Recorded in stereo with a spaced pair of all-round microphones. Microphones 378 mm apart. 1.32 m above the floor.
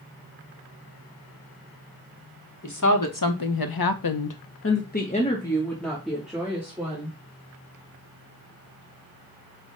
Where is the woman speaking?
50° left (ahead or behind), 1.1 m; by 7.2 s 5° right (ahead or behind), 1.8 m.